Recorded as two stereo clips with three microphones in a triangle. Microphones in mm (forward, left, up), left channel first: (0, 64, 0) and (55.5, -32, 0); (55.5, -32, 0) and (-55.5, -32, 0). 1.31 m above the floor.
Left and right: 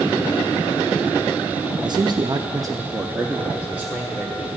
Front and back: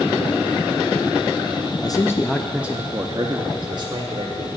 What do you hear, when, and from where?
1.8 s a man speaking: 35° right, 0.5 m; by 4.6 s 140° right, 1.4 m